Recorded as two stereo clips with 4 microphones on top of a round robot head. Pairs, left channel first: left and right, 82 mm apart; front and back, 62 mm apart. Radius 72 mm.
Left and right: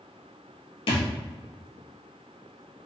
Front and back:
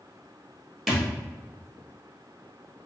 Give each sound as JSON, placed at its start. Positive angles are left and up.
{"t": 0.9, "sound": "a thud", "azimuth_deg": 95, "distance_m": 1.4}